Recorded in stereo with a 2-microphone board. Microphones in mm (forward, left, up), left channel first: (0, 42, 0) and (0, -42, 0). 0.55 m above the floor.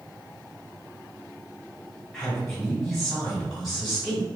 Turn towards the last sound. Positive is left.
turn(degrees=5)  # may be behind; listen again after turning